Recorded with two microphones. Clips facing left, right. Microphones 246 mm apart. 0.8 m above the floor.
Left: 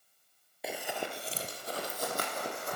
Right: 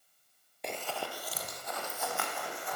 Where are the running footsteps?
5° left (ahead or behind), 1.1 m; by 2.8 s 45° left (ahead or behind), 3 m.